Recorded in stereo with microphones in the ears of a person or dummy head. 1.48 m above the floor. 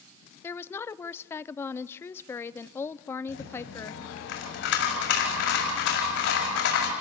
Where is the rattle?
75° left (ahead or behind), 4.5 m.